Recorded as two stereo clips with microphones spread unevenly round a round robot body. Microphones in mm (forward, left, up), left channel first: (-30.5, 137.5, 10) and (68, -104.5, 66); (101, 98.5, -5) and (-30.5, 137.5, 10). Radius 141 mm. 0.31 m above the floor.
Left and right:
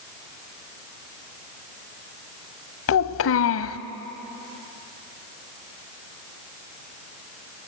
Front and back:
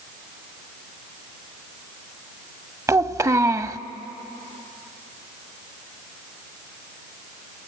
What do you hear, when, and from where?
2.9 s a child speaking: 95° left, 1.1 m